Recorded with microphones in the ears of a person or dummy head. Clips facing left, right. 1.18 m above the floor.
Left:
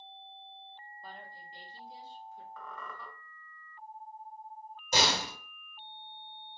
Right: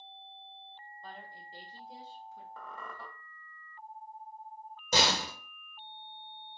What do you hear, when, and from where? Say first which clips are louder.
1.0 s a woman speaking: right 1 dB; 5° left (ahead or behind), 0.5 m; by 2.5 s 60° right (ahead or behind), 0.9 m
2.6 s a squeak: right 1 dB; 30° right (ahead or behind), 0.7 m
4.9 s a door slam: even; 70° right (ahead or behind), 1.0 m